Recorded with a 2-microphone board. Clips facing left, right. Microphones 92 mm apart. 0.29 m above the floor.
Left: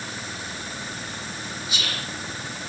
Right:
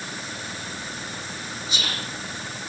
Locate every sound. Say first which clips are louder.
1.7 s whispering: right 2 dB; 35° right (ahead or behind), 3 m